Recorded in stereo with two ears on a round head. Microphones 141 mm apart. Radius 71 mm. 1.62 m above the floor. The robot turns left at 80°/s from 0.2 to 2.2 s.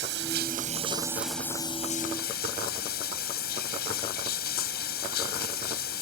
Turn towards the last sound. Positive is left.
turn(degrees=110)